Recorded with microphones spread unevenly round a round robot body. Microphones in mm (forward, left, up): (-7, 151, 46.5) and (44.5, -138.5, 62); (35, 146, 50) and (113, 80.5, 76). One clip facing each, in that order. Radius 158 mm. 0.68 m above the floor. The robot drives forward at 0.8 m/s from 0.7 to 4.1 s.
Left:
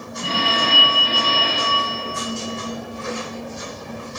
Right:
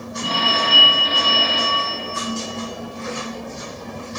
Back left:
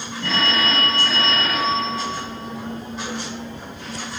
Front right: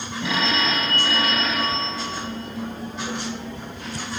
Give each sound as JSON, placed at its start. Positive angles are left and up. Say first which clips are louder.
{"t": 0.2, "sound": "a phone ringing", "louder": "left 1 dB, back left 1 dB", "azimuth_deg": 40, "distance_m": 3.5}